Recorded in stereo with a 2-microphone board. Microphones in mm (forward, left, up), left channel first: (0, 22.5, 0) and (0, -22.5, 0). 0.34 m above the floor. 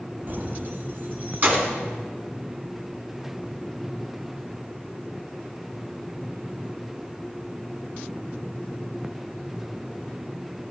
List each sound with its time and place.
0.3 s keys jangling: 40° right (ahead or behind), 1.3 m